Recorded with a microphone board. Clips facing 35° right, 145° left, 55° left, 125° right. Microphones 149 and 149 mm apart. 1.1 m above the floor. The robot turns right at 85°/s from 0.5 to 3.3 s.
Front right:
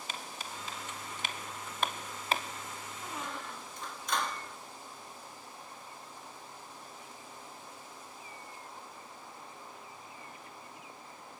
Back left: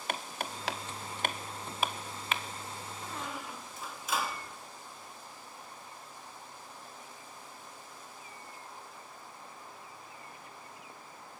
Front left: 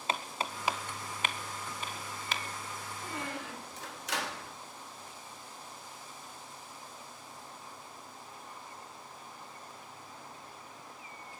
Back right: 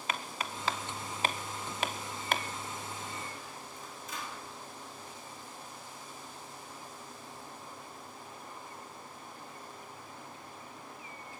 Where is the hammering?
115° left, 2.0 m; by 2.4 s 80° right, 2.0 m.